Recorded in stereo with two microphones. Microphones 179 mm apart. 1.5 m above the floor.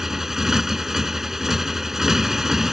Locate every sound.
0.0 s a motorcycle: centre (ahead or behind)